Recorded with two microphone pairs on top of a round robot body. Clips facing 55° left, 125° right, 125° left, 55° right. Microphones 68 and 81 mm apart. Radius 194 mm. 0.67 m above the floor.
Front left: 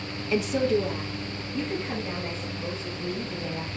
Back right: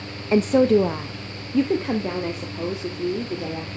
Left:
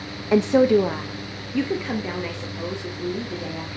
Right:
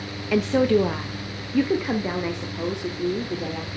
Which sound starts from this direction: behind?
A woman speaking, at 0.3 s.